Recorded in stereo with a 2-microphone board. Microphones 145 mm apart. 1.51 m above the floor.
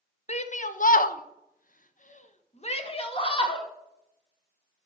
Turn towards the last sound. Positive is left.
turn(degrees=35)  # may be behind; listen again after turning